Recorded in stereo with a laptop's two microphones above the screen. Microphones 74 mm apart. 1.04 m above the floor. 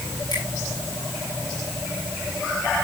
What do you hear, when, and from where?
0.3 s a finger snap: 75° left (ahead or behind), 7.5 m